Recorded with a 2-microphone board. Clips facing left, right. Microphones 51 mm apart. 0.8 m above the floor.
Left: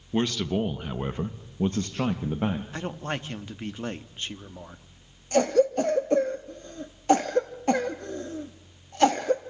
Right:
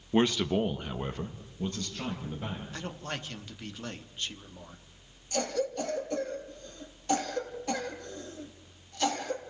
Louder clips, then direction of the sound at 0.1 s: Even; 20° right (ahead or behind).